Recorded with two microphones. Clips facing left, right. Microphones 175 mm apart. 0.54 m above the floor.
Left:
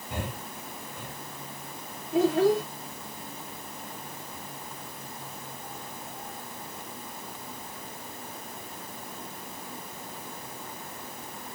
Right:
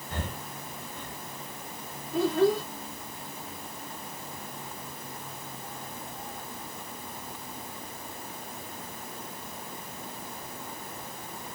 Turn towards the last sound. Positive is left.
turn(degrees=55)  # may be behind; listen again after turning